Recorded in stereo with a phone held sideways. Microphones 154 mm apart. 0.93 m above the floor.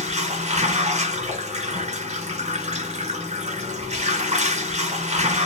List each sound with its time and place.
0.0 s running water: 45° right (ahead or behind), 1.1 m